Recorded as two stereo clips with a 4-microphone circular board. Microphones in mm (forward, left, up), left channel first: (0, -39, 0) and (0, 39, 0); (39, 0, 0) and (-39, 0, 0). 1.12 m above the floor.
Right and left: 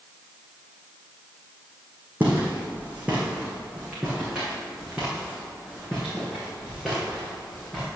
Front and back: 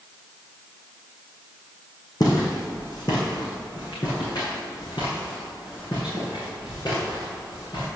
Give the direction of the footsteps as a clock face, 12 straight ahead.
11 o'clock.